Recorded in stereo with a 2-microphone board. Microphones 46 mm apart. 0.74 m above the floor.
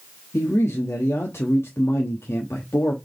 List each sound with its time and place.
0.3 s a man speaking: 65° left (ahead or behind), 0.8 m